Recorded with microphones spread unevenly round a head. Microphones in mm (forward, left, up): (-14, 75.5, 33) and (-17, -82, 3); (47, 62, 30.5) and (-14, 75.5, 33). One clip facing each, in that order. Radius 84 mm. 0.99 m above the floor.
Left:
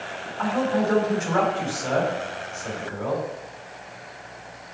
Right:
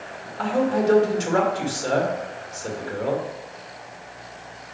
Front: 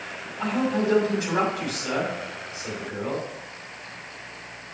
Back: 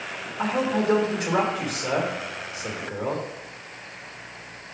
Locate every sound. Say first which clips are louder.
0.4 s a man speaking: right 2 dB, even; 140° right, 2.5 m